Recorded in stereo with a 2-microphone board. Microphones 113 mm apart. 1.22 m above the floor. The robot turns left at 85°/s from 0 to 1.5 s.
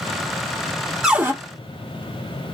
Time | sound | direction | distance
1.0 | a cupboard door | 5° right (ahead or behind) | 1.3 m